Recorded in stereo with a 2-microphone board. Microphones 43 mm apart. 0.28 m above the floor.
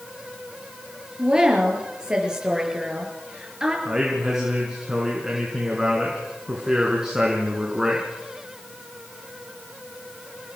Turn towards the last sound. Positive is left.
turn(degrees=-15)  # may be behind; listen again after turning